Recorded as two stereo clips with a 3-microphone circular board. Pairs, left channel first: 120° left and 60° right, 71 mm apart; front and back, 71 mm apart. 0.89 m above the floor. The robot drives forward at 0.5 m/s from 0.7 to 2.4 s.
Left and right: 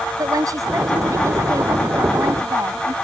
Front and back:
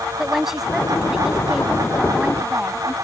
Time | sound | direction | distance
0.2 | a woman speaking | 95° right | ?